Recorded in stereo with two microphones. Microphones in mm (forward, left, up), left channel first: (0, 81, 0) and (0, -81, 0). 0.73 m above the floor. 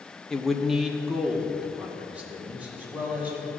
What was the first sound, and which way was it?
A man speaking, 5° left (ahead or behind).